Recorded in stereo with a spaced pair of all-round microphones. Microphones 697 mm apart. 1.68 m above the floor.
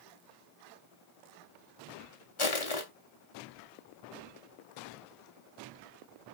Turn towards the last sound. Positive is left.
turn(degrees=45)  # may be behind; listen again after turning